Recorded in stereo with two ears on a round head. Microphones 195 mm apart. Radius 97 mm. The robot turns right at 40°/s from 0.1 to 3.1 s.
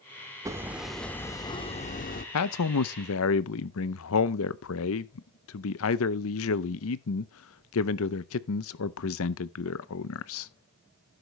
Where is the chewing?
No chewing in this recording.